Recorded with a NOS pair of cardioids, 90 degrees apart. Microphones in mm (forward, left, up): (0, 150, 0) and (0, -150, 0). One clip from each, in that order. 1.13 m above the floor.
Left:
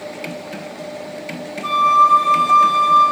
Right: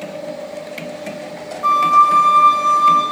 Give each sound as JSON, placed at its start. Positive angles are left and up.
{"t": 1.6, "sound": "a flute", "azimuth_deg": -35, "distance_m": 5.5}